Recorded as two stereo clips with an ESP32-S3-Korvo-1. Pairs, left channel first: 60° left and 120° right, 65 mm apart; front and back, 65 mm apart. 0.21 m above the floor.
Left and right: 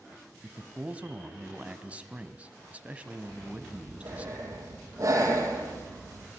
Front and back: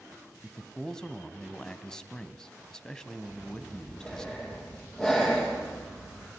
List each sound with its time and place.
0.4 s a man speaking: 70° right, 1.5 m
3.3 s breathing: 75° right, 6.5 m